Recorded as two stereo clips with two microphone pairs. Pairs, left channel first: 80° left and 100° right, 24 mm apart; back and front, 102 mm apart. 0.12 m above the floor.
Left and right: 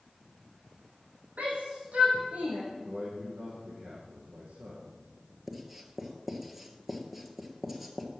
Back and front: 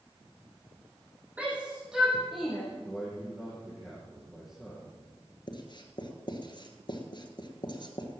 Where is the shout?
80° right, 4.5 m; by 2.6 s 90° right, 4.5 m.